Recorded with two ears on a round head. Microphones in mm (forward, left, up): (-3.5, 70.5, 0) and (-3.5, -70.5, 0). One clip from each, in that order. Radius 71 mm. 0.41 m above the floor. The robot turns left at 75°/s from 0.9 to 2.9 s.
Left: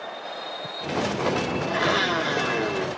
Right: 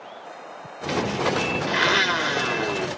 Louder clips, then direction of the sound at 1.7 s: Right 3 dB; 85° right.